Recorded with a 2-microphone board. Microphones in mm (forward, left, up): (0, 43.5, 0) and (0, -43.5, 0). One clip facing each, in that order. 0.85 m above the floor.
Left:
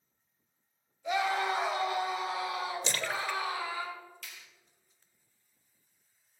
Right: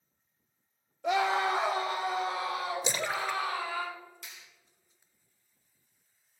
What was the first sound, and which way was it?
A scream, 70° right (ahead or behind).